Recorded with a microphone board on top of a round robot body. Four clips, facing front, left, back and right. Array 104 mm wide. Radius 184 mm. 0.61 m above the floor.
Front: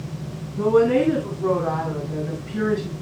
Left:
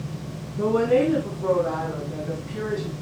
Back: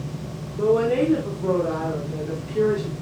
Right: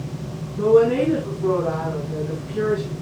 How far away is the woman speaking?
About 8 m.